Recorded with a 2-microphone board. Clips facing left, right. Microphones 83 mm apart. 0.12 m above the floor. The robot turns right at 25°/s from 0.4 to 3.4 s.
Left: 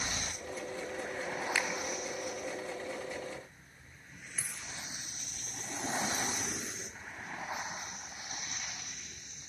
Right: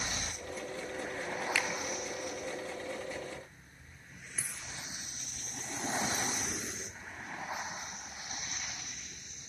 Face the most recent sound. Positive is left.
turn(degrees=-10)  # may be behind; listen again after turning